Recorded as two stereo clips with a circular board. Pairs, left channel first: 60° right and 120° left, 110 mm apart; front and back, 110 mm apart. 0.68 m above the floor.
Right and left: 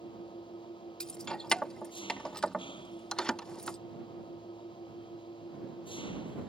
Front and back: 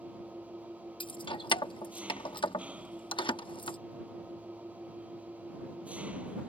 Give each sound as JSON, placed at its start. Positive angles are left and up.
{"t": 0.0, "sound": "an engine running", "azimuth_deg": -100}
{"t": 1.0, "sound": "keys jangling", "azimuth_deg": 20}